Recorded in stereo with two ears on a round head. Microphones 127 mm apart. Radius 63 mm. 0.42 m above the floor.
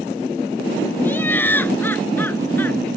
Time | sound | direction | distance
1.0 | laughter | 15° left (ahead or behind) | ?